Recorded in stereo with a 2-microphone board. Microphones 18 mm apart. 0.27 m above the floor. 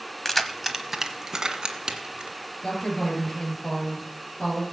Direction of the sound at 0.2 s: 15° left (ahead or behind).